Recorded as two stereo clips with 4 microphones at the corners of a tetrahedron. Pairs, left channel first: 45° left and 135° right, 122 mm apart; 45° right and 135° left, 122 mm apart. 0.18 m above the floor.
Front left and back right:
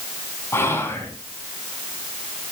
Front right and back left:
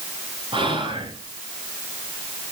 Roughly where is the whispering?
Left.